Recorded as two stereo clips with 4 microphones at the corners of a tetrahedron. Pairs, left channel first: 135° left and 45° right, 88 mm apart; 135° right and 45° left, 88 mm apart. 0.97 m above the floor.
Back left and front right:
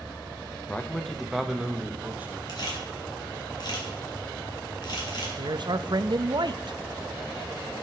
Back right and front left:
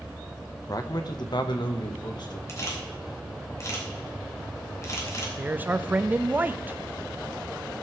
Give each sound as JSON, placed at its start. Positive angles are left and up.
{"t": 0.7, "sound": "a man speaking", "azimuth_deg": -160, "distance_m": 1.0}
{"t": 2.5, "sound": "a camera shutter", "azimuth_deg": 170, "distance_m": 3.0}
{"t": 5.4, "sound": "a man speaking", "azimuth_deg": -25, "distance_m": 0.6}